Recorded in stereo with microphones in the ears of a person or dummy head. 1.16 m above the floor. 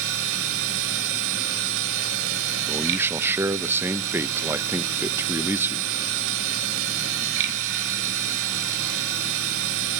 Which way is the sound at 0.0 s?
65° right (ahead or behind).